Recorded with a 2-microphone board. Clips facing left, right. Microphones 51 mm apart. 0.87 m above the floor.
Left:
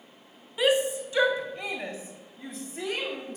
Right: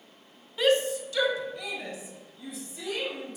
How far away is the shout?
About 1.0 m.